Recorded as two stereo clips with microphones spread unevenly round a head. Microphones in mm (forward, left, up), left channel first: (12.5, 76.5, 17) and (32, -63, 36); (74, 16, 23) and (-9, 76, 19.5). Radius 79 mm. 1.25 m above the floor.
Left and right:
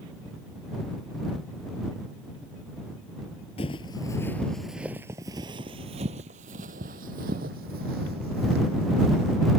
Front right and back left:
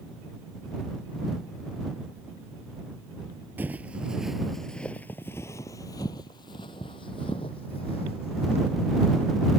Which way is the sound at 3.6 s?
85° left.